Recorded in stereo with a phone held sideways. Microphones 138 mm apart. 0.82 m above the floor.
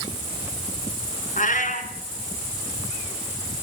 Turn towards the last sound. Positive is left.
turn(degrees=70)  # may be behind; listen again after turning